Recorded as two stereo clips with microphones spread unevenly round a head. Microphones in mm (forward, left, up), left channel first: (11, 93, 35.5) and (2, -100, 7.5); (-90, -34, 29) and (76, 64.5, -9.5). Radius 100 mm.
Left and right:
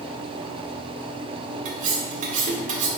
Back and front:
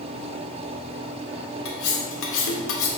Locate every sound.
1.6 s cutlery clinking: 150° right, 1.2 m